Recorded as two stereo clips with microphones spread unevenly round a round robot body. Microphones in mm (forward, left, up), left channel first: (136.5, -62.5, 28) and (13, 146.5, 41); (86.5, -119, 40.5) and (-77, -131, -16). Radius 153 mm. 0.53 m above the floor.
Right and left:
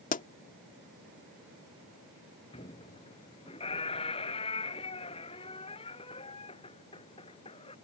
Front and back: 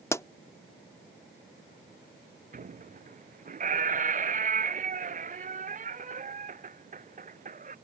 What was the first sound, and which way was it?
A pop, 90° right.